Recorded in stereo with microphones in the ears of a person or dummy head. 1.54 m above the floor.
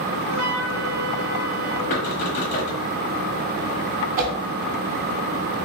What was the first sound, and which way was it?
A flute, 65° right (ahead or behind).